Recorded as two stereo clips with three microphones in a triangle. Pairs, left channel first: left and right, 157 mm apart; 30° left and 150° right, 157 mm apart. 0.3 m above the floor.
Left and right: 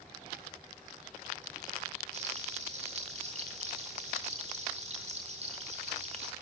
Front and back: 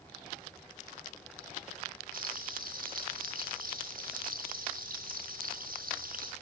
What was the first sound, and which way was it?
Frying, 135° right.